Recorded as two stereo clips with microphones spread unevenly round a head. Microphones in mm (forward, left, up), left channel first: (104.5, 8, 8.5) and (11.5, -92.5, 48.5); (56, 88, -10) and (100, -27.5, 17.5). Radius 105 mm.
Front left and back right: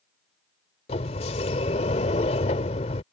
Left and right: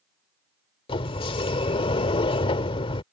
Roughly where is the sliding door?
Left.